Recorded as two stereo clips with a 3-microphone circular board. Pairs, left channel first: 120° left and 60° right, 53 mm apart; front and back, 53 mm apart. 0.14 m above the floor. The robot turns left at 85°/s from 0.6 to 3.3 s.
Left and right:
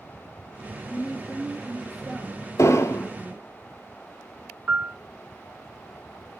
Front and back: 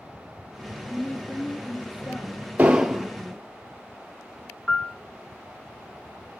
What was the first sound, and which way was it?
A woman speaking, 120° left.